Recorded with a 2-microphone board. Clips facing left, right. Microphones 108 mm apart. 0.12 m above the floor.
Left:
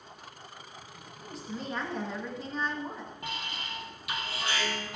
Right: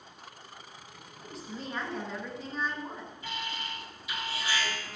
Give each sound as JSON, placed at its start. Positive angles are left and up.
{"t": 1.2, "sound": "a woman speaking", "side_deg": 0, "distance_m": 1.8}
{"t": 3.2, "sound": "an alarm", "side_deg": 70, "distance_m": 3.0}